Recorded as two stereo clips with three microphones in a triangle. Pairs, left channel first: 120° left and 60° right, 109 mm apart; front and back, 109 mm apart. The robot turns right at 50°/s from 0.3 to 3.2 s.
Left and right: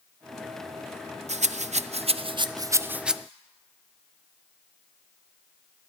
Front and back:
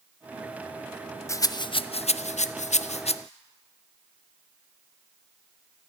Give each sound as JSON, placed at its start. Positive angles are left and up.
{"t": 1.3, "sound": "a rattle", "azimuth_deg": -70, "distance_m": 0.5}